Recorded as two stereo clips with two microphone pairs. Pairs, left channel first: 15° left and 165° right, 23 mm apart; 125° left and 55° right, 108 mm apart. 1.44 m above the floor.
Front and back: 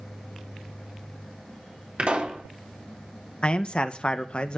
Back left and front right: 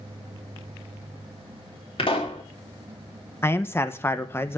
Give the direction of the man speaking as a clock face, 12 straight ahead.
10 o'clock.